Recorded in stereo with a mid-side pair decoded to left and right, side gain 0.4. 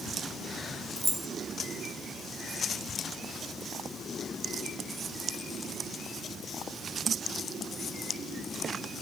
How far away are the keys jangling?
About 0.8 m.